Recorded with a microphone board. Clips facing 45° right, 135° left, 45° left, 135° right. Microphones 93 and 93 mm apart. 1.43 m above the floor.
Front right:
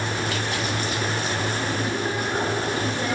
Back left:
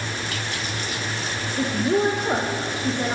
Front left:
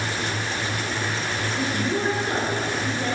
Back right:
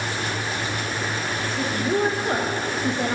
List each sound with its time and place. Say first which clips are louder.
1.6 s a woman speaking: back left 5 dB, back right 3 dB; 150° left, 1.8 m; by 3.1 s 155° right, 1.8 m